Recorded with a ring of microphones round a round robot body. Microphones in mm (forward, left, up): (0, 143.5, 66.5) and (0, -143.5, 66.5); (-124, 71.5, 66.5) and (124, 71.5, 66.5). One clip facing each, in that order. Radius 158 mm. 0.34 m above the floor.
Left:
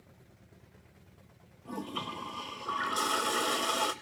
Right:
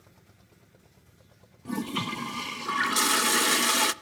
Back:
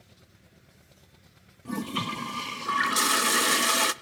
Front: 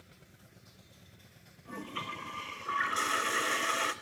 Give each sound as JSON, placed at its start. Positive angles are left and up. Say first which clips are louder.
{"t": 1.6, "sound": "a toilet flushing", "louder": "right 8 dB, back 11 dB", "azimuth_deg": -140, "distance_m": 0.6}